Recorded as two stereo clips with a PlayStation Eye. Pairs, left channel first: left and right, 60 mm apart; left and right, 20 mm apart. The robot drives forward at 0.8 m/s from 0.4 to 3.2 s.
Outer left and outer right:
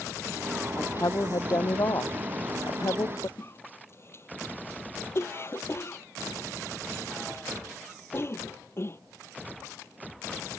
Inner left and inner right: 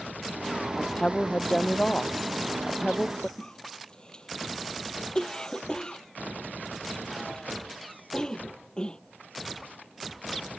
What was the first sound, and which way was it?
A woman speaking, 75° left (ahead or behind).